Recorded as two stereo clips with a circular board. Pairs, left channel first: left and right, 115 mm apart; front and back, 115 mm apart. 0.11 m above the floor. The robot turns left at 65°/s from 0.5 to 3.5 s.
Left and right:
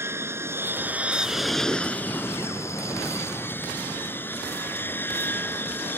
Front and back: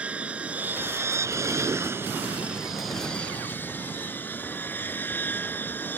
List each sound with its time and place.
0.0 s an aircraft: 120° right; by 6.0 s 45° left